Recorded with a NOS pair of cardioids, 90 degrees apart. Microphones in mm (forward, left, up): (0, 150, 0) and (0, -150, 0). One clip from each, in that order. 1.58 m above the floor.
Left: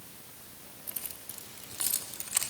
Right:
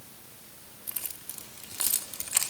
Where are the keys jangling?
25° right, 3 m.